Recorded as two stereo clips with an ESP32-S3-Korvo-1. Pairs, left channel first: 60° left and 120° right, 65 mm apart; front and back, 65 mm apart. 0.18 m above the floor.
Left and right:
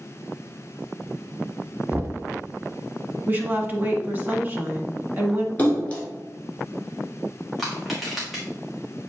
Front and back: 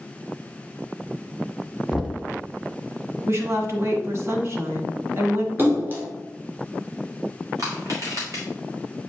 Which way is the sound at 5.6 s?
130° left.